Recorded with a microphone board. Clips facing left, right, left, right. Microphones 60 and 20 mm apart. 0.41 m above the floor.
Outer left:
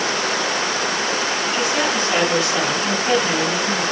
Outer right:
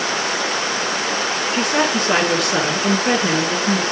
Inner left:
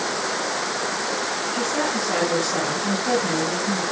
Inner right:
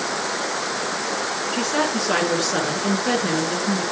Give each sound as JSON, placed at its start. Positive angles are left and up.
{"t": 1.5, "sound": "a woman speaking", "side_deg": -60, "distance_m": 4.0}